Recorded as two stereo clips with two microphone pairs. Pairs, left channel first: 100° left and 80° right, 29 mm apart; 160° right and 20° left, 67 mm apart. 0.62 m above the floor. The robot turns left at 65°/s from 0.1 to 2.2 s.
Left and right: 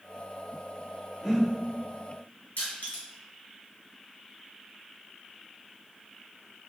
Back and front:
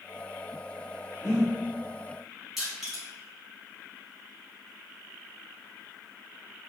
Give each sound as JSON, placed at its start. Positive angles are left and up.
{"t": 1.2, "sound": "breathing", "azimuth_deg": -175, "distance_m": 1.5}
{"t": 2.6, "sound": "crushing", "azimuth_deg": 110, "distance_m": 1.5}